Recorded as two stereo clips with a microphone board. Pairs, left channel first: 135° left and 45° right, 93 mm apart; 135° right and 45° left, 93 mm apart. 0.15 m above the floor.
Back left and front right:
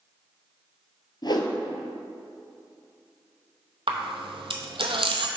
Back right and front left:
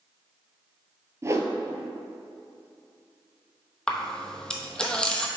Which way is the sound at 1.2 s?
100° left.